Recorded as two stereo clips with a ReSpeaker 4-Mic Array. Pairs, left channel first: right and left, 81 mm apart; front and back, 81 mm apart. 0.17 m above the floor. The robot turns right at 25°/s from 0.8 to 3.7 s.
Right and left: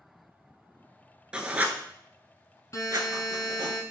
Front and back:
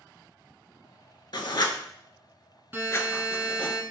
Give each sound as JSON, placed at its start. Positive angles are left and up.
{"t": 1.3, "sound": "writing", "azimuth_deg": 15, "distance_m": 0.5}
{"t": 2.7, "sound": "a buzzer", "azimuth_deg": -120, "distance_m": 1.0}